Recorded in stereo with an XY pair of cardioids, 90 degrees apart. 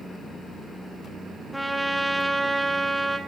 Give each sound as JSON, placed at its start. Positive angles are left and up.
{"t": 1.5, "sound": "a trumpet", "azimuth_deg": -5, "distance_m": 0.7}